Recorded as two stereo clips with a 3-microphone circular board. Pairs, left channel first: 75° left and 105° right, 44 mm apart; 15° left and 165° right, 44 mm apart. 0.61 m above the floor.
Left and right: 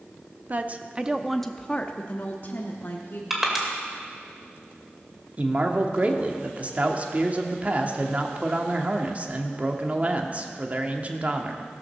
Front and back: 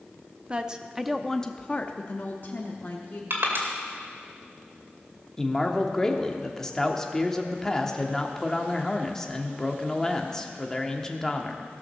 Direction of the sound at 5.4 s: 60° right.